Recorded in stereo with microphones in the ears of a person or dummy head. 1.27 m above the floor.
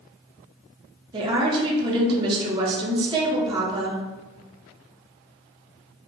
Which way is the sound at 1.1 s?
25° right (ahead or behind).